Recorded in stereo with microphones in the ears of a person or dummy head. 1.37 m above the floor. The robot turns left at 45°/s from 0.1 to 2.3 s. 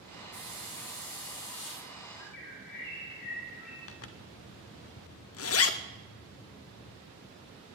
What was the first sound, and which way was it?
A hiss, 155° left.